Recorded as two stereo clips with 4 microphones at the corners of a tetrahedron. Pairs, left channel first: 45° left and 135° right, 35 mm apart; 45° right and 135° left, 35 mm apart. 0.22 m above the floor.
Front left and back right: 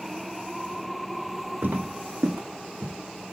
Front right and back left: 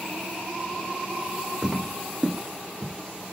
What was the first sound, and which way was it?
Footsteps, 150° right.